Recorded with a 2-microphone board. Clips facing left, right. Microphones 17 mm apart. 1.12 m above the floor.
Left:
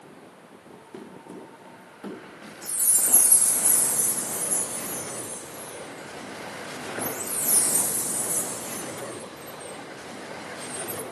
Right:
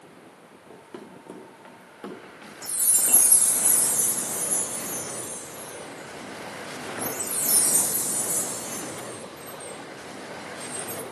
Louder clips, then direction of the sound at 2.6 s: Right 1 dB; 50° right (ahead or behind).